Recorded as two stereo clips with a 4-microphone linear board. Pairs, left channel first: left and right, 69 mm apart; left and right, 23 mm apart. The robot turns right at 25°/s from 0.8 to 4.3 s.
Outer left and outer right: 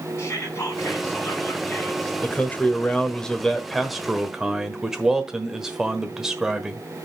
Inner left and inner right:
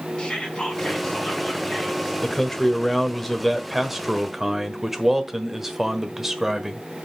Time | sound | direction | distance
0.2 | whispering | 135° left | 3.5 m
2.2 | a man speaking | 140° left | 1.2 m